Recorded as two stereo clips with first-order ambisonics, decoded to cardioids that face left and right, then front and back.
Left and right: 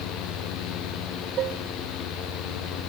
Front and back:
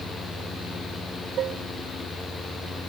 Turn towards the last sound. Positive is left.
turn(degrees=-135)